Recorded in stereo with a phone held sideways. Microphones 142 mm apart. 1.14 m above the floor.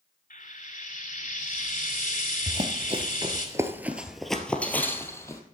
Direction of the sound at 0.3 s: 75° left (ahead or behind).